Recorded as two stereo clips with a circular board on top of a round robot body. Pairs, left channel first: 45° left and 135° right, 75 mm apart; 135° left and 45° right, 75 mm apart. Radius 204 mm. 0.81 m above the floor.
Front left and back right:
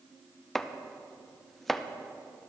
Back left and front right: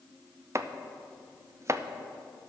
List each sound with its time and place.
0.6 s chopping: 40° right, 0.8 m